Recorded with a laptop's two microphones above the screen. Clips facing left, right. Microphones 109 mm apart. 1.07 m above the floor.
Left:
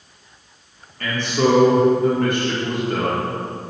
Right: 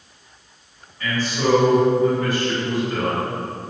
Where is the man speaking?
60° left (ahead or behind), 1.5 m.